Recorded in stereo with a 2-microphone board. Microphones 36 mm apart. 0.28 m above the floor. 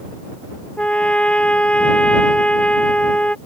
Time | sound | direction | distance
0.8 | a trumpet | 30° left (ahead or behind) | ?